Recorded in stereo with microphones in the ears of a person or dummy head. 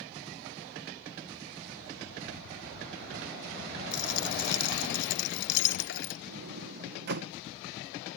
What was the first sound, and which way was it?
A dropped coin, 60° left (ahead or behind).